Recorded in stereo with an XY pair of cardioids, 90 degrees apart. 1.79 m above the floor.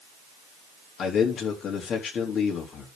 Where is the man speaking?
65° left, 4 m.